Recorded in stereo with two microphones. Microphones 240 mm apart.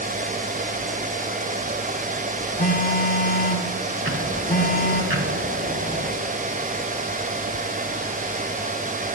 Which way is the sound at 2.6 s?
35° left (ahead or behind).